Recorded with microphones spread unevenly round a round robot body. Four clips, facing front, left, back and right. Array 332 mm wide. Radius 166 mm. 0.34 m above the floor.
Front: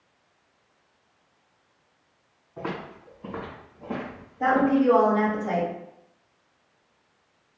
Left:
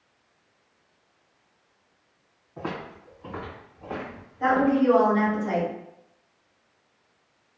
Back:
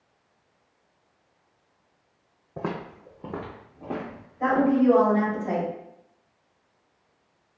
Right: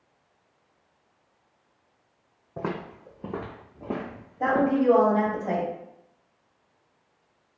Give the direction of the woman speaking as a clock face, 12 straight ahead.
3 o'clock.